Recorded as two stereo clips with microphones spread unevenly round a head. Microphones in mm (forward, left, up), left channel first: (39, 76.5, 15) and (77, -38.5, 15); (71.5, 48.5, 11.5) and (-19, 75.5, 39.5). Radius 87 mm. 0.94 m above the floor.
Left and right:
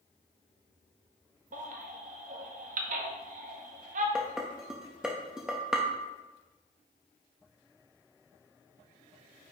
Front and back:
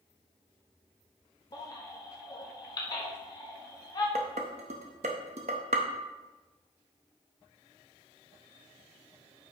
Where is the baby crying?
70° right, 0.9 m.